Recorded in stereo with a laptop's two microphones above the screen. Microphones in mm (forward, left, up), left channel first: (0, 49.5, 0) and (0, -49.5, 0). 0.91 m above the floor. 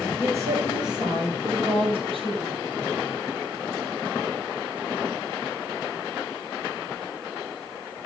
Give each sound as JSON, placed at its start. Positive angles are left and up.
{"t": 0.2, "sound": "a woman speaking", "side_deg": -25, "distance_m": 3.5}